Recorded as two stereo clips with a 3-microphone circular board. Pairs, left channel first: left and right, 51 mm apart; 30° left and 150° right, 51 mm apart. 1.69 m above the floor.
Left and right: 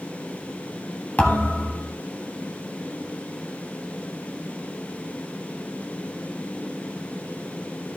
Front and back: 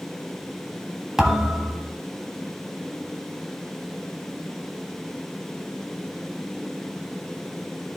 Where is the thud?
135° left, 1.4 m.